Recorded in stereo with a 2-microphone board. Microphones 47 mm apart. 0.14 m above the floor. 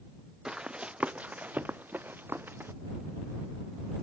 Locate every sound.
0.5 s running footsteps: 15° right (ahead or behind); by 2.7 s 50° right (ahead or behind)